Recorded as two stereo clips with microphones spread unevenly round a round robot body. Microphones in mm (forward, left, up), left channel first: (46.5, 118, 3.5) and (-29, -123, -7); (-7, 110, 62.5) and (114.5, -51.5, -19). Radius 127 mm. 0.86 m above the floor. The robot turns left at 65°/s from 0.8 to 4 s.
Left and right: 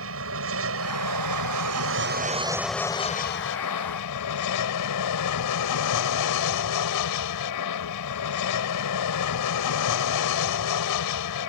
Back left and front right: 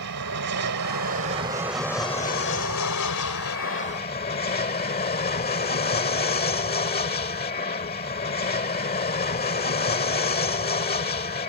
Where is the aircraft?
75° right; by 11.5 s 80° left.